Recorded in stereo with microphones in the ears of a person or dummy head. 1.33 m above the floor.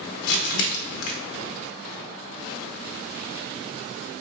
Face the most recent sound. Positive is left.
turn(degrees=60)  # may be behind; listen again after turning